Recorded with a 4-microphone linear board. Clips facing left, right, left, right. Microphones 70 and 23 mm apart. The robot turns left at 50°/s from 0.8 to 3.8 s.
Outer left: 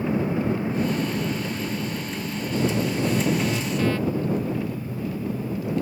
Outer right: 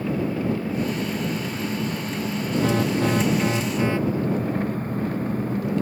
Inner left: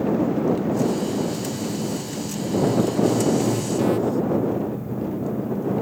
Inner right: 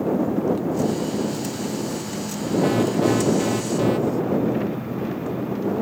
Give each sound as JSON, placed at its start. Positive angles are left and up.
{"t": 0.0, "sound": "an engine running", "azimuth_deg": 20}
{"t": 2.6, "sound": "an alarm", "azimuth_deg": -105}